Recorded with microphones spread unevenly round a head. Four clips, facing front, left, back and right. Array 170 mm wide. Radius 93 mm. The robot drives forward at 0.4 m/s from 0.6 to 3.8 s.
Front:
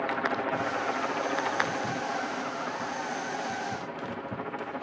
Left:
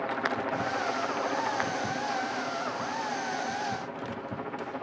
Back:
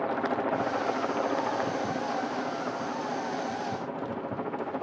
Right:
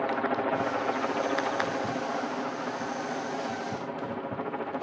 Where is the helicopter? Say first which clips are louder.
Right 3 dB, back 1 dB; 135° right; by 4.8 s 140° right.